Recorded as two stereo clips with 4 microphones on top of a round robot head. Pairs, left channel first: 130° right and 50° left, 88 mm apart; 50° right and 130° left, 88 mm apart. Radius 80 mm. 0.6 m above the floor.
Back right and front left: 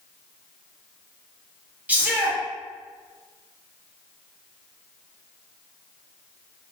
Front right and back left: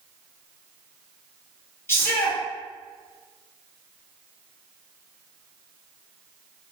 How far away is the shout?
About 1.4 m.